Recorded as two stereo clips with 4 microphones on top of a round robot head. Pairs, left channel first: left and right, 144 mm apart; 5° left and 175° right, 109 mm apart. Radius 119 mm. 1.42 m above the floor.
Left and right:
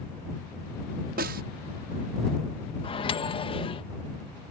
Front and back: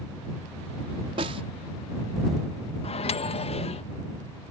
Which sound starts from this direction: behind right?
A snare drum, at 1.2 s.